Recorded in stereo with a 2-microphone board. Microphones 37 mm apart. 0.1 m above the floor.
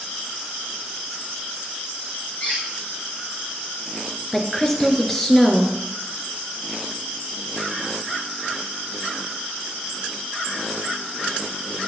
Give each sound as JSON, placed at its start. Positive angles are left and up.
{"t": 2.4, "sound": "a squeak", "side_deg": 45, "distance_m": 5.0}
{"t": 4.3, "sound": "a woman speaking", "side_deg": 10, "distance_m": 1.7}